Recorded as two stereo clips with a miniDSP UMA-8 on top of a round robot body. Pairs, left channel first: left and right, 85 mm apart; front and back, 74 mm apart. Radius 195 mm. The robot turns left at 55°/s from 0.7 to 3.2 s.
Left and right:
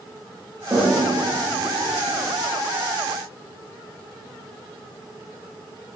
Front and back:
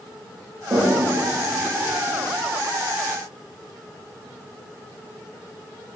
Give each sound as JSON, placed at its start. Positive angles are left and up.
{"t": 0.7, "sound": "a toilet flushing", "azimuth_deg": -150, "distance_m": 0.8}